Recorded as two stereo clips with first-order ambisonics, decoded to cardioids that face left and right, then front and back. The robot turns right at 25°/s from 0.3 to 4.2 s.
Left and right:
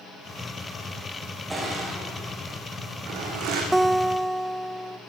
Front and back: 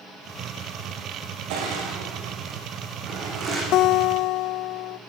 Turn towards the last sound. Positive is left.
turn(degrees=0)